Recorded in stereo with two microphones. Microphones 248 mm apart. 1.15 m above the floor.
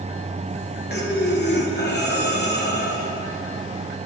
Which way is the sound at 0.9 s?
45° left (ahead or behind).